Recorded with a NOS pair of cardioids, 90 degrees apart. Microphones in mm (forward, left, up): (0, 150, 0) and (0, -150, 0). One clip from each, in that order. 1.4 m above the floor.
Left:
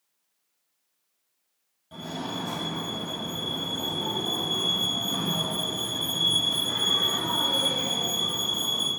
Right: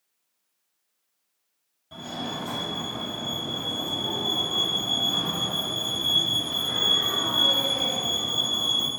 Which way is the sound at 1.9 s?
5° right.